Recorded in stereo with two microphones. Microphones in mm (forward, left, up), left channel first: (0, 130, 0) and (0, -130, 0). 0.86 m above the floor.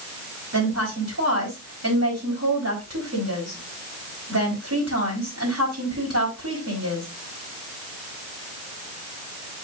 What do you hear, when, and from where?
0.5 s a woman speaking: 75° right (ahead or behind), 4.5 m